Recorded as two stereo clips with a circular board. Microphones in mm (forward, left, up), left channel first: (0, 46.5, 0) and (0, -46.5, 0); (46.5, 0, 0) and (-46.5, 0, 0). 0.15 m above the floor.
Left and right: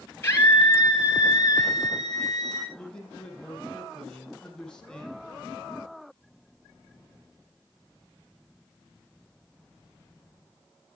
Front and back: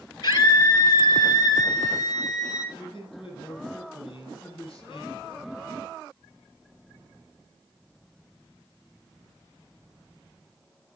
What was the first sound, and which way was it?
A scream, 30° left.